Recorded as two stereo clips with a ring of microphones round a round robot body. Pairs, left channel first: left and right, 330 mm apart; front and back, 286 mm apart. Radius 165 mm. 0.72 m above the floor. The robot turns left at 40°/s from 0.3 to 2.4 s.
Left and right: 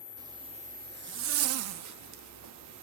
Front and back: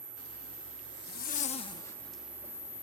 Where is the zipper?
15° right, 1.0 m; by 2.8 s 100° right, 1.0 m.